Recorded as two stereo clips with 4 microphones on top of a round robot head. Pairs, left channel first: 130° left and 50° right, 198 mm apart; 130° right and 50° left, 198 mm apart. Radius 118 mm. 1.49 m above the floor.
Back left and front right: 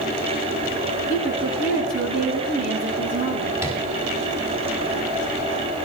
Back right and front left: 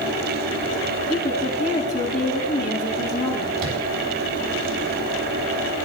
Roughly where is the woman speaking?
Right.